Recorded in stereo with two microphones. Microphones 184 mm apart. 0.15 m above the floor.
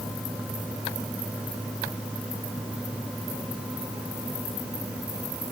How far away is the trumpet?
No trumpet in this recording.